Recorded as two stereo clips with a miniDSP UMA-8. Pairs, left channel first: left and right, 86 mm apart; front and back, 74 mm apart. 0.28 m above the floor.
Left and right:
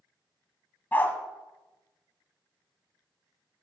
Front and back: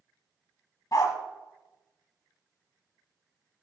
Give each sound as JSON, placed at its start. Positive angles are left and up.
{"t": 0.9, "sound": "a dog barking", "azimuth_deg": 25, "distance_m": 0.7}